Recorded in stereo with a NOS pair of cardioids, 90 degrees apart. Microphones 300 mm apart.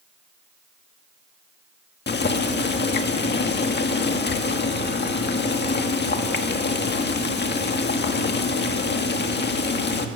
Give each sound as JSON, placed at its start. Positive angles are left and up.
{"t": 2.1, "sound": "boiling", "azimuth_deg": 35, "distance_m": 1.8}